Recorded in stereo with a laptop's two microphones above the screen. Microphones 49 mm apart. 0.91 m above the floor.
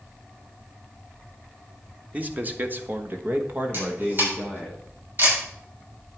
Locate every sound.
2.1 s a man speaking: 30° right (ahead or behind), 1.6 m; by 4.7 s 25° right (ahead or behind), 2.5 m
3.7 s a camera shutter: 45° right (ahead or behind), 6 m